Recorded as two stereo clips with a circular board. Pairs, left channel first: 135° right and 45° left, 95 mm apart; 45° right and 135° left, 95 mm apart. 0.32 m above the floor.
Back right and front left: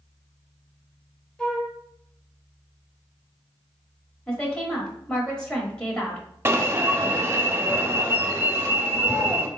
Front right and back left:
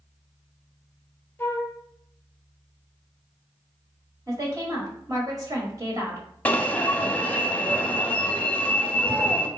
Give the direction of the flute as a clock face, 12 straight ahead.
2 o'clock.